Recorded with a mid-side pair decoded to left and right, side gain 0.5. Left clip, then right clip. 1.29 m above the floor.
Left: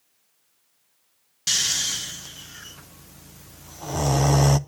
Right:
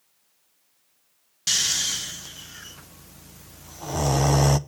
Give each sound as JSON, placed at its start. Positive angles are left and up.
{"t": 1.5, "sound": "snoring", "azimuth_deg": 5, "distance_m": 0.5}